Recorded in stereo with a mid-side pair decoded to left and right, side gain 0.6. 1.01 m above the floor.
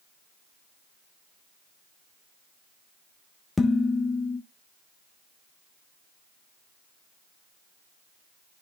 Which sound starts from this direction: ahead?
Dishes clattering, at 3.6 s.